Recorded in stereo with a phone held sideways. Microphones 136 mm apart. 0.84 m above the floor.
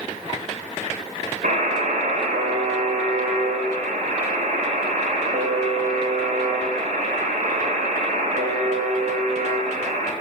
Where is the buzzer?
80° right, 3.5 m.